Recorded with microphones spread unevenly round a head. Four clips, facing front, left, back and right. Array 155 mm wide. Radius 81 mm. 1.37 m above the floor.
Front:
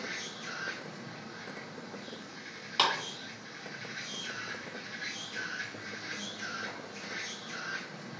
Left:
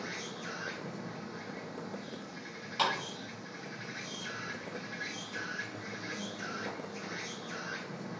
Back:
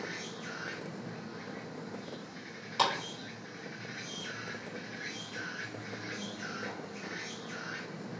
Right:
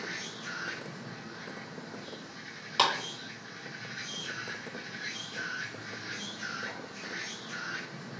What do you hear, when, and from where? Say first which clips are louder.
0.0 s an insect: even, back 1 dB; 110° left, 0.7 m
2.8 s a clap: right 4 dB, even; 50° right, 3 m